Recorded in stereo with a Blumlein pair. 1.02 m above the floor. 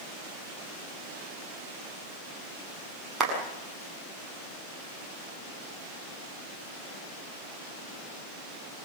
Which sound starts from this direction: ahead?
A clap, at 3.2 s.